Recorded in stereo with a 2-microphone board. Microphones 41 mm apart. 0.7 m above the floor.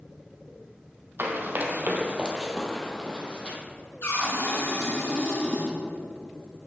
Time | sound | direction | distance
1.2 | running footsteps | 60° right (ahead or behind) | 1.6 m
4.0 | a cupboard door | 75° left (ahead or behind) | 4 m